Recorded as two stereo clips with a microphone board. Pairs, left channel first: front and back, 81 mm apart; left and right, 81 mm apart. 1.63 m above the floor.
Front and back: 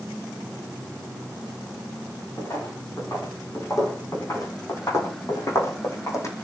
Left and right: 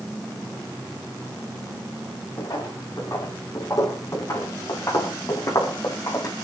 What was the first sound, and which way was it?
Footsteps, 50° left.